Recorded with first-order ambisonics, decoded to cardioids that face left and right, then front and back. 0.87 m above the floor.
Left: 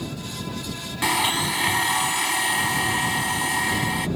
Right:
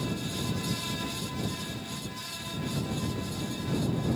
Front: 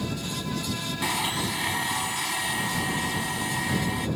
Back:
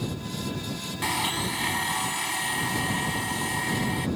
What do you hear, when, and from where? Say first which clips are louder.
1.0 s a blender: left 14 dB, back 1 dB; 90° left